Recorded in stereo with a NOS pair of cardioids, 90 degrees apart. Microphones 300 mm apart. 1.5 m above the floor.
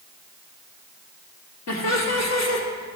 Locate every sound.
1.7 s laughter: 65° left, 2 m